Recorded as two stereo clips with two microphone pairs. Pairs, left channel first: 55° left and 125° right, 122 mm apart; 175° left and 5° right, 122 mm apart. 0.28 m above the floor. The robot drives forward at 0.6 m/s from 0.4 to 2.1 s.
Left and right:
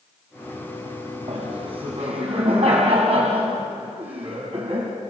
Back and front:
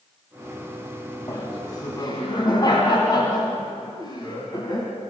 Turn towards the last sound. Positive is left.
turn(degrees=-140)